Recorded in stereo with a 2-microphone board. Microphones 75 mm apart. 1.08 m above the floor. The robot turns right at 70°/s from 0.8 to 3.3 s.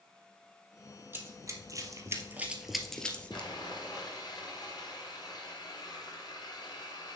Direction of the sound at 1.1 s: 30° right (ahead or behind).